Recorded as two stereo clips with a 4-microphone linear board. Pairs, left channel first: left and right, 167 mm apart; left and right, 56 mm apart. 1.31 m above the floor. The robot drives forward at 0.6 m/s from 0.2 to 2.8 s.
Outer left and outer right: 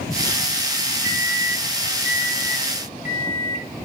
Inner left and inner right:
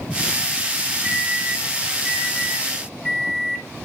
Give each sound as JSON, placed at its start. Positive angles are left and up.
{"t": 1.0, "sound": "a microwave", "side_deg": -20, "distance_m": 0.6}